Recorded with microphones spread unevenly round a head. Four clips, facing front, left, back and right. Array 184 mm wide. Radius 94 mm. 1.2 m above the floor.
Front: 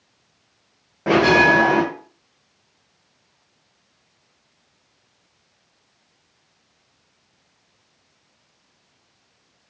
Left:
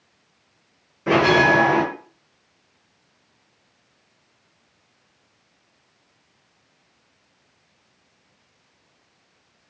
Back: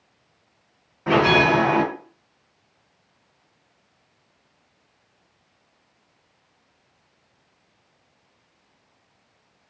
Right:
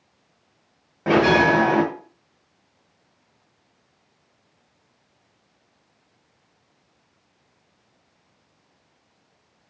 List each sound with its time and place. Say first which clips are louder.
1.1 s a bell: even, front 3 dB; 50° right, 1.5 m